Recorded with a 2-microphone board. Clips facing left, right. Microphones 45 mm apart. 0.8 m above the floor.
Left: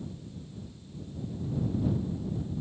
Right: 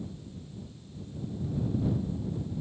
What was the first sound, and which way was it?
Only background noise.